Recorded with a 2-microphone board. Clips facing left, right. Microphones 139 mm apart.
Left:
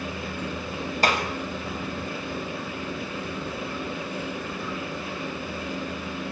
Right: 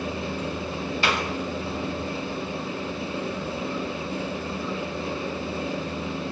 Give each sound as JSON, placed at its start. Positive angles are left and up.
{"t": 1.0, "sound": "a clap", "side_deg": 40, "distance_m": 6.5}